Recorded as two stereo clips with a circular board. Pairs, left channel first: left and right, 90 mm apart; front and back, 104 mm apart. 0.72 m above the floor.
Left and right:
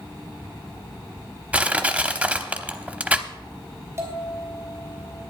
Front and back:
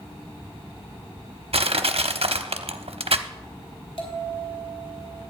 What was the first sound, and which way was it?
Crushing, 165° right.